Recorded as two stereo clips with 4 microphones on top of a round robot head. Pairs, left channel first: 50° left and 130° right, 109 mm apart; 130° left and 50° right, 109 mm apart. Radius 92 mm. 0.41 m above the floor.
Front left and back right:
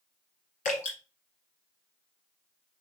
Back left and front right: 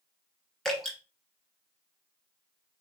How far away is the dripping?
About 2.5 m.